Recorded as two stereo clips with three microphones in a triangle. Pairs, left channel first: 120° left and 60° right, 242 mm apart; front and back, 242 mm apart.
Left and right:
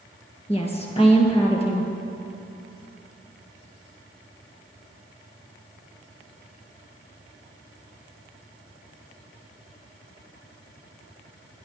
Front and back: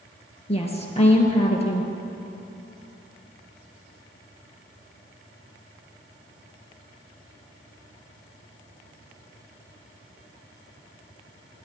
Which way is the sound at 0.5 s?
60° left.